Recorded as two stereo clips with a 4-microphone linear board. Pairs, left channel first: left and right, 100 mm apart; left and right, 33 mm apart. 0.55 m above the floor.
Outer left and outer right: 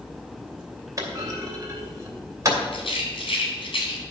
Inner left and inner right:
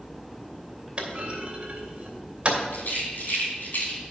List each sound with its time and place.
1.0 s a clunk: 35° right (ahead or behind), 2.5 m
2.7 s a rattle: 75° left (ahead or behind), 3 m